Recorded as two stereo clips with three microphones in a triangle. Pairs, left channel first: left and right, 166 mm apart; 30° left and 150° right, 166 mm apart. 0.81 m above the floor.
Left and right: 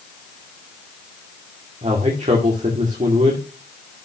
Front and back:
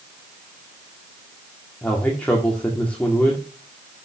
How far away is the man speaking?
About 2 m.